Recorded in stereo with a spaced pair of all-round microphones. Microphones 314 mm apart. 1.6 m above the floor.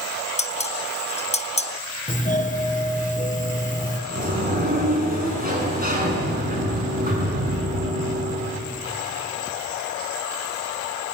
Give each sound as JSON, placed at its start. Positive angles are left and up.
{"t": 0.4, "sound": "dishes clattering", "side_deg": 20, "distance_m": 1.0}
{"t": 2.1, "sound": "a doorbell", "side_deg": 25, "distance_m": 1.6}
{"t": 4.1, "sound": "a sliding door", "side_deg": -30, "distance_m": 7.5}